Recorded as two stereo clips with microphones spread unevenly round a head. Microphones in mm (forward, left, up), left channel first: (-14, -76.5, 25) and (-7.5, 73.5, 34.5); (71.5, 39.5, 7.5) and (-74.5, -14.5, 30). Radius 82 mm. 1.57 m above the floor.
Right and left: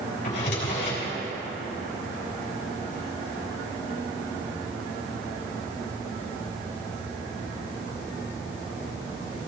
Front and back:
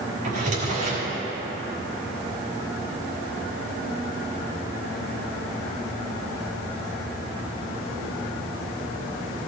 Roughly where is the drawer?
Behind right.